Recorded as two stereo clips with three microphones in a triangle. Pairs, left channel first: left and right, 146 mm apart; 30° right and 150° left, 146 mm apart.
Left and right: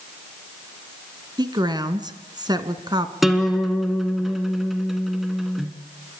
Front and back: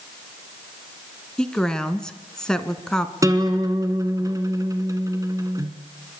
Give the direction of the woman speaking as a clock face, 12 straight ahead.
4 o'clock.